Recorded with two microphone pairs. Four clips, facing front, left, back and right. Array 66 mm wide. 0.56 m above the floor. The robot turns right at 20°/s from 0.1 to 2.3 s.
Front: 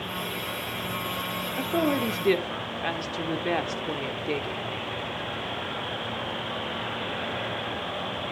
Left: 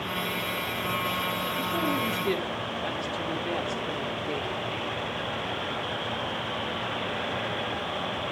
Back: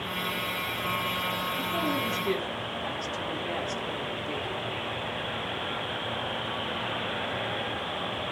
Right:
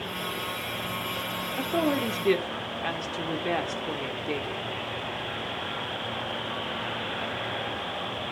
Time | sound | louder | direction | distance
1.6 | a woman speaking | right 4 dB, front 7 dB | 45° right | 1.4 m